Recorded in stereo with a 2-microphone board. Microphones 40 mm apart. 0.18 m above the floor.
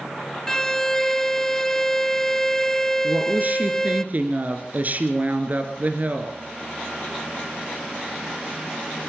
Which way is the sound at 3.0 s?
45° right (ahead or behind).